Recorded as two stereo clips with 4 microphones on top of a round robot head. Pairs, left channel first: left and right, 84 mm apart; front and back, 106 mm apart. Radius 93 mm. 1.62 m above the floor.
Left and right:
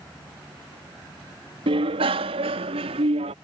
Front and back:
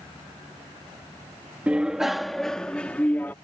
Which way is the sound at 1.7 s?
100° right.